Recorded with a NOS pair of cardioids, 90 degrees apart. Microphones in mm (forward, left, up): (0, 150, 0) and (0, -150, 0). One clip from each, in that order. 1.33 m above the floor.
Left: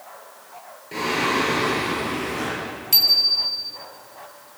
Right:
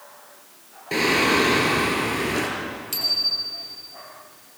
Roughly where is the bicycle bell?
Ahead left.